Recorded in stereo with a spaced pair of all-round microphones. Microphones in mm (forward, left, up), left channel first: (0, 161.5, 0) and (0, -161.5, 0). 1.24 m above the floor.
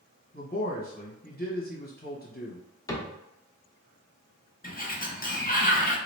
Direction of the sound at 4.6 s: 25° left (ahead or behind).